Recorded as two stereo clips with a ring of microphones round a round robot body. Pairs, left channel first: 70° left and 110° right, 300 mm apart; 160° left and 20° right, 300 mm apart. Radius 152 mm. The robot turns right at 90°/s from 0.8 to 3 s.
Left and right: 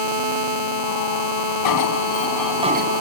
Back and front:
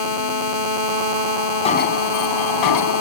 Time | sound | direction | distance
1.6 | an alarm | 85° left | ?